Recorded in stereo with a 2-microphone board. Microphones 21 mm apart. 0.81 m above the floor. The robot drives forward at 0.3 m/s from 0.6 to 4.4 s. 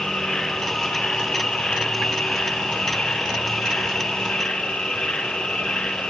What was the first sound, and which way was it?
An insect, 50° left (ahead or behind).